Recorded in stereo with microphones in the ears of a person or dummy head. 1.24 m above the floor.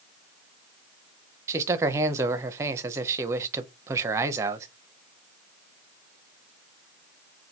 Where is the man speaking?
20° right (ahead or behind), 0.5 m.